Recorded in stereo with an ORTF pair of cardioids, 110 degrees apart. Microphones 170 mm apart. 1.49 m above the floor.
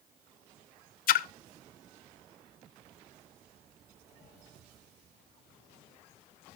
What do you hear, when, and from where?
1.1 s a splash: 55° left, 0.5 m